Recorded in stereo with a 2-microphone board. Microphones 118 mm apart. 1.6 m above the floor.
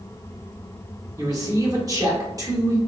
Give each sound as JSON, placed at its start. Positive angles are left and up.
{"t": 1.2, "sound": "a man speaking", "side_deg": -30, "distance_m": 1.0}